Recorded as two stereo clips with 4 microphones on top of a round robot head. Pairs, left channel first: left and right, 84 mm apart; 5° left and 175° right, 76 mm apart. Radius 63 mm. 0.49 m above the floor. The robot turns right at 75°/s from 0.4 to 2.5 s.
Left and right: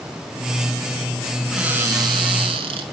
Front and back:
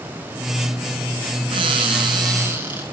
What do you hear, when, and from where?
1.5 s a cupboard door: 175° right, 4.5 m; by 2.8 s 100° right, 4.5 m